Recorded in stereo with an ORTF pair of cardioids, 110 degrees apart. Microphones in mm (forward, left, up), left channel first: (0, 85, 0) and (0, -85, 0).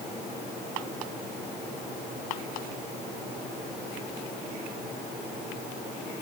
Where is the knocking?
No knocking in this recording.